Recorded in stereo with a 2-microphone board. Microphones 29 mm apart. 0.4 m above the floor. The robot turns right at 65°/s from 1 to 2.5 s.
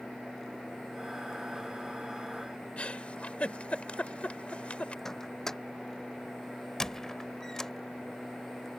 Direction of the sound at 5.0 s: 15° left (ahead or behind).